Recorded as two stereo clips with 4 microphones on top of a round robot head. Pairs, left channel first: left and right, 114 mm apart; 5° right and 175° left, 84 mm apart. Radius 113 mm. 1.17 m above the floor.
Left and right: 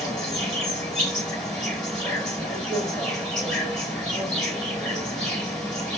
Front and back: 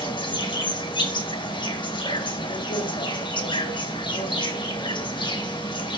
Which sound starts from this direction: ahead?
An insect, at 0.0 s.